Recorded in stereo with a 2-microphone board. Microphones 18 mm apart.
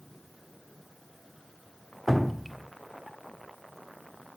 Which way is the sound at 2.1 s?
5° right (ahead or behind).